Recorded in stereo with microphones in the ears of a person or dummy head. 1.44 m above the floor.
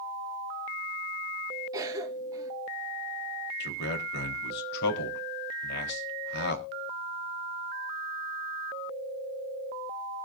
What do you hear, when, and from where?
1.7 s a cough: 20° right (ahead or behind), 2.5 m
3.6 s a man speaking: 60° left (ahead or behind), 4 m